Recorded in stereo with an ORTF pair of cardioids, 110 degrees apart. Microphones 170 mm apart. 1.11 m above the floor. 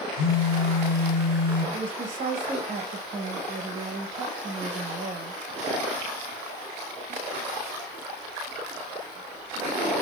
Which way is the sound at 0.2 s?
70° left.